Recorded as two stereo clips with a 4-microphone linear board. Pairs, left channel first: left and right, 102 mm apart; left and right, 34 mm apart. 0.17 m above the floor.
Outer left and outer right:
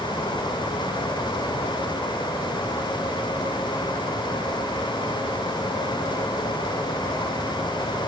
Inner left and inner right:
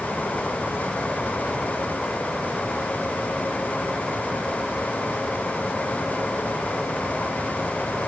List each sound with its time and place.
Only background noise.